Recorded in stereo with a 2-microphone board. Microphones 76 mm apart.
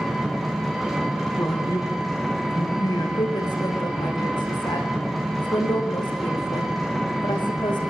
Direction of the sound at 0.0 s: Centre (ahead or behind).